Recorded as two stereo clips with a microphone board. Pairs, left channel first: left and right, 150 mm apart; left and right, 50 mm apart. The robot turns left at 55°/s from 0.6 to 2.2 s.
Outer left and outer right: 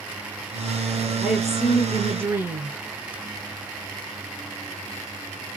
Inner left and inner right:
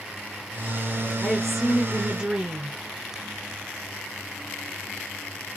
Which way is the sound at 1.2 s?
5° left (ahead or behind).